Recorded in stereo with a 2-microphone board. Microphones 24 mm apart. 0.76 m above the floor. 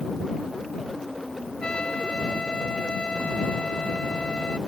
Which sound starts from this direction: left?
A trumpet, at 1.6 s.